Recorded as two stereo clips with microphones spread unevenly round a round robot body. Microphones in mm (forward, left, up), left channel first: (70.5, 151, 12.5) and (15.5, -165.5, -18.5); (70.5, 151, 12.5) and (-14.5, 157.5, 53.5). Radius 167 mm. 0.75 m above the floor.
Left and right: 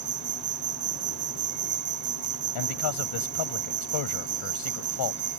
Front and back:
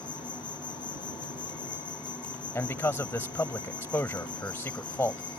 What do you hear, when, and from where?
0.0 s an insect: 50° right
2.5 s a man speaking: 60° left